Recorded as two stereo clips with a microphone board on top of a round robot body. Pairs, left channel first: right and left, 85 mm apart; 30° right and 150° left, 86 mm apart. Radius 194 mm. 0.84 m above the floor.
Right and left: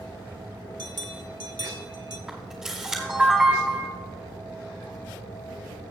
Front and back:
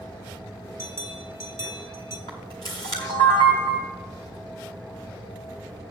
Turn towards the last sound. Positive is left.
turn(degrees=10)